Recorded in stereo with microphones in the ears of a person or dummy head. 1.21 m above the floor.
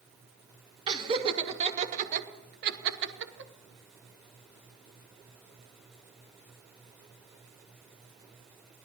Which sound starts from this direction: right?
Laughter, at 0.9 s.